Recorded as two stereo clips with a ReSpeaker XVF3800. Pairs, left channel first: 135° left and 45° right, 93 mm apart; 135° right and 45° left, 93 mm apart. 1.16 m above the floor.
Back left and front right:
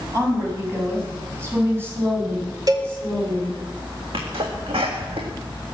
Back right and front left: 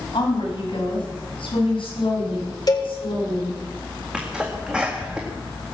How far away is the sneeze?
About 1.8 m.